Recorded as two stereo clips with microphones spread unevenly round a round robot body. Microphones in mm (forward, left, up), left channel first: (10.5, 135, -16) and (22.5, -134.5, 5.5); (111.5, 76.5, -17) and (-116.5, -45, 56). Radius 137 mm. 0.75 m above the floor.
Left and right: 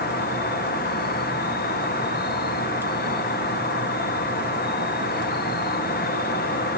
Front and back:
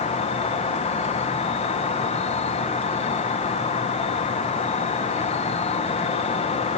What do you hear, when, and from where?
0.0 s an insect: 60° left, 0.8 m